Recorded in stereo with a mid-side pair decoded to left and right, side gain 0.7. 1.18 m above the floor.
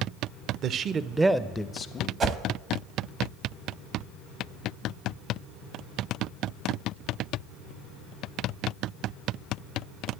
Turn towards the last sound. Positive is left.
turn(degrees=-40)